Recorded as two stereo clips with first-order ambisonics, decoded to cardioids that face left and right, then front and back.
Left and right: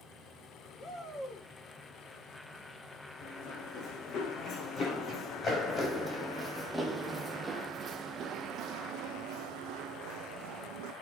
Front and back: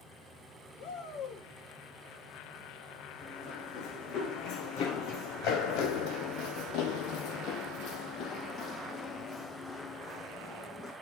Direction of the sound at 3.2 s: 45° left.